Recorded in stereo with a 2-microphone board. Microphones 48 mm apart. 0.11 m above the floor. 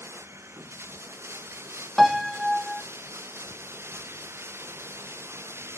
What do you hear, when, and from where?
0.0 s running water: 60° right (ahead or behind)
2.0 s a piano: centre (ahead or behind)